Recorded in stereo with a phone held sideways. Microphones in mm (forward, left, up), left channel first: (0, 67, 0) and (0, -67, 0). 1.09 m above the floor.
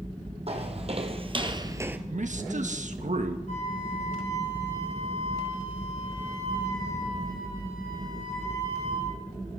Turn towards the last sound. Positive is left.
turn(degrees=70)  # may be behind; listen again after turning